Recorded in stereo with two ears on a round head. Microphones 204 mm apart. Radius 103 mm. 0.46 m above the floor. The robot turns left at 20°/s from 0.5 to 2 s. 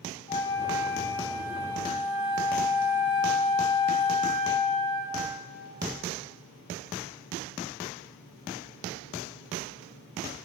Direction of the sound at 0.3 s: 75° left.